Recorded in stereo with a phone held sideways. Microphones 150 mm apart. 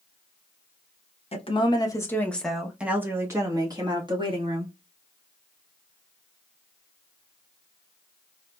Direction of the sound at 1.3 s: 45° left (ahead or behind).